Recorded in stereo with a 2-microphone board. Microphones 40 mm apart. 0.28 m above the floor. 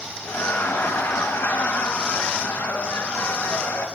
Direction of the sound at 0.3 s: 70° left (ahead or behind).